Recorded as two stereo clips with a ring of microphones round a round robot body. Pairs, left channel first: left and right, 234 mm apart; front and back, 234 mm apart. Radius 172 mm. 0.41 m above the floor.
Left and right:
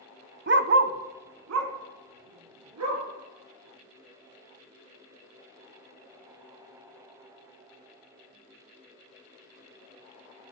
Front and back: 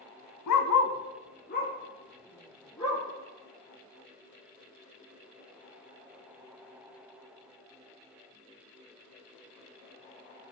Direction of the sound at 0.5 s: 40° right.